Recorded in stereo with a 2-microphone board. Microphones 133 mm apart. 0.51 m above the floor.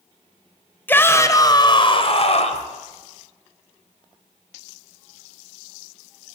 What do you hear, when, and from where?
0.9 s a shout: 15° left (ahead or behind), 2.5 m; by 2.7 s 60° left (ahead or behind), 3 m